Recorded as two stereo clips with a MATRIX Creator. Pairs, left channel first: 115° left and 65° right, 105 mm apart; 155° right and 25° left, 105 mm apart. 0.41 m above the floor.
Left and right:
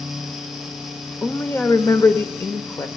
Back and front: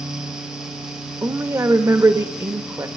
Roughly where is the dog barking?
I don't hear a dog barking.